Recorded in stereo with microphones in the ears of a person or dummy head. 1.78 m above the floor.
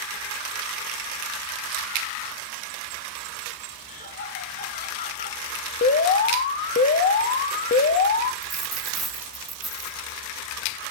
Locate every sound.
3.9 s laughter: 40° left (ahead or behind), 7.5 m
5.8 s an alarm: 40° left (ahead or behind), 1.4 m
8.4 s a dropped coin: centre (ahead or behind), 4.5 m